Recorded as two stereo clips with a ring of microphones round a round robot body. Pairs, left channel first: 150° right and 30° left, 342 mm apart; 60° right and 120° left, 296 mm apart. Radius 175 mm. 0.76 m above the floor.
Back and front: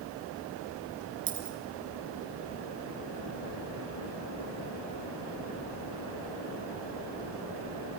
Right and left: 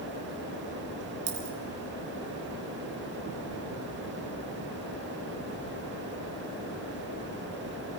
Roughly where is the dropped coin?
Left.